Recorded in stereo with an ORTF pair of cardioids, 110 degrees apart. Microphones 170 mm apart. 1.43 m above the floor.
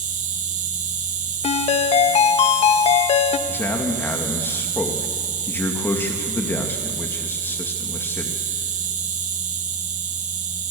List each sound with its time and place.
0.0 s an insect: 50° right, 2.0 m
1.4 s a ringtone: 40° left, 1.3 m
3.5 s a man speaking: 15° left, 2 m